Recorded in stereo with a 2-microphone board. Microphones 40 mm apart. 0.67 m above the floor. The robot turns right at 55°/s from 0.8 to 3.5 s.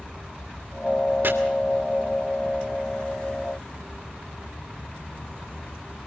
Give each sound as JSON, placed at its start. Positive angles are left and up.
{"t": 1.2, "sound": "chopping", "side_deg": -55, "distance_m": 2.5}